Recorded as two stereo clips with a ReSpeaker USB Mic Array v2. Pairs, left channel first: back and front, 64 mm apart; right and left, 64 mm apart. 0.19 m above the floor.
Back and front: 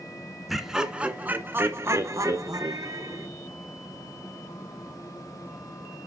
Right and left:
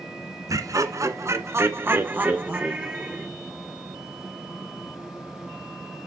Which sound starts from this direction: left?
Laughter, at 0.5 s.